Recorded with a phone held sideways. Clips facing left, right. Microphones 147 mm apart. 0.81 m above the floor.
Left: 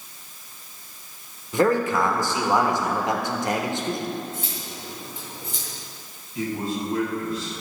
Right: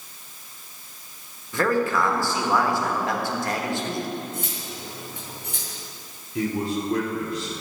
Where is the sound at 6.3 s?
75° right (ahead or behind), 2.5 m.